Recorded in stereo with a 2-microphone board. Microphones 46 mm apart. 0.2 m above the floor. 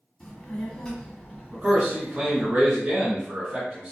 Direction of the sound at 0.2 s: 10° left (ahead or behind).